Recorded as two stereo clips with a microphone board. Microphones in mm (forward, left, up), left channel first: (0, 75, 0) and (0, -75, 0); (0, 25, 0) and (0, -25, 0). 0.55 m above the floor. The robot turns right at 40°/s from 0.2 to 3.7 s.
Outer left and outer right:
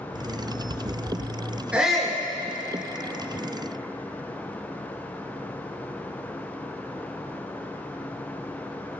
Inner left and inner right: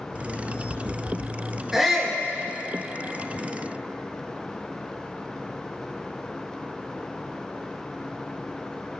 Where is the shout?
10° right (ahead or behind), 6.5 m; by 2.2 s 10° left (ahead or behind), 6.5 m.